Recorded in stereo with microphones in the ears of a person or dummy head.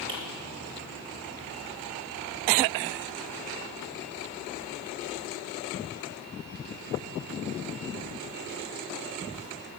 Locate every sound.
0.1 s a finger snap: 30° right (ahead or behind), 1.2 m